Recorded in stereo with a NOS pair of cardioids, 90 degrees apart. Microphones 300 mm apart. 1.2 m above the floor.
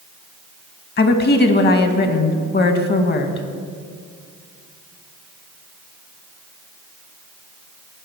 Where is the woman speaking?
35° left, 0.9 m.